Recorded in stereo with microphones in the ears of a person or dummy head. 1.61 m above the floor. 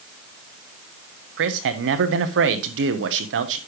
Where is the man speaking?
80° right, 1.1 m.